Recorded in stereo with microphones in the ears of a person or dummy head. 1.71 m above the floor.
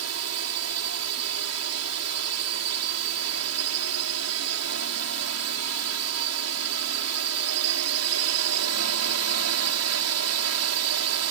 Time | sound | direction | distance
0.0 | a drone | 75° right (ahead or behind) | ?